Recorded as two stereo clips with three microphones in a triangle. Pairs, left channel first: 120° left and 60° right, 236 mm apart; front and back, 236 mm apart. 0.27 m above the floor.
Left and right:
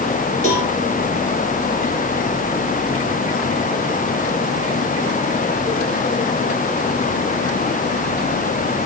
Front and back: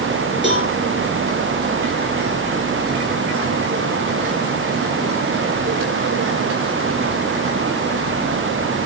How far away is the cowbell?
About 3.5 m.